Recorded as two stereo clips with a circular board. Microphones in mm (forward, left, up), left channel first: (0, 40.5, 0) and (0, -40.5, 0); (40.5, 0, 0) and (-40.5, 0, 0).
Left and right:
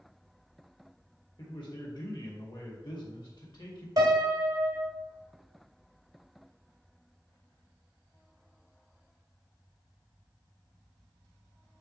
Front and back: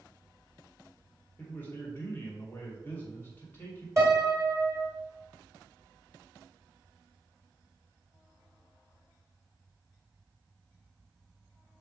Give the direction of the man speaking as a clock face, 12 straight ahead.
10 o'clock.